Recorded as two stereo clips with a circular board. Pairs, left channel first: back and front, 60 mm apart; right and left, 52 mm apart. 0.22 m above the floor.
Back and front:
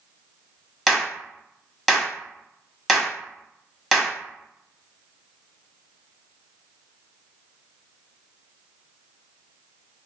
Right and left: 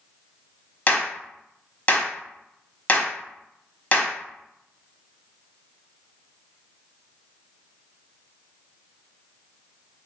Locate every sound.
0.9 s a clap: 90° right, 0.8 m